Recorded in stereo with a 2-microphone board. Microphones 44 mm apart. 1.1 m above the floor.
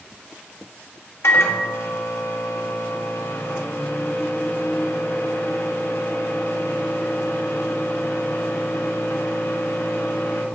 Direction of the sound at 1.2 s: 85° left.